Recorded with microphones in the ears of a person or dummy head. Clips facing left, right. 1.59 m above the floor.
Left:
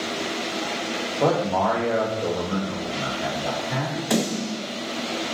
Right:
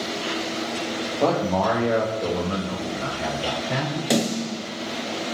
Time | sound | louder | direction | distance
1.2 | a man speaking | even | 10° left (ahead or behind) | 0.7 m
4.1 | a snare drum | right 1 dB | 45° right (ahead or behind) | 1.6 m